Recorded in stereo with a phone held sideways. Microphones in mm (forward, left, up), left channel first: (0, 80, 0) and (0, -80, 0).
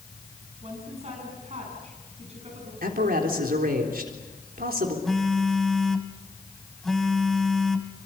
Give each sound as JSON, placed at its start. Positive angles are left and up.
{"t": 0.6, "sound": "a woman speaking", "side_deg": -40, "distance_m": 9.0}
{"t": 2.8, "sound": "a man speaking", "side_deg": -65, "distance_m": 3.5}
{"t": 5.0, "sound": "a phone buzzing", "side_deg": 0, "distance_m": 1.7}